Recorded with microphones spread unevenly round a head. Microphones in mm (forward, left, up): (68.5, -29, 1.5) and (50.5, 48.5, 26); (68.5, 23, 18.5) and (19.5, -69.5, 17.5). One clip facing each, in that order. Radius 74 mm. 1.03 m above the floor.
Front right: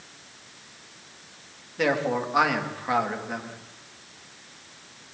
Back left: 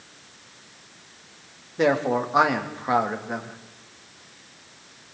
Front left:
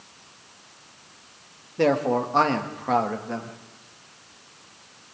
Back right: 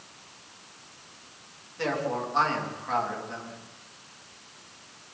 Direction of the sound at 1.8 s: 35° left.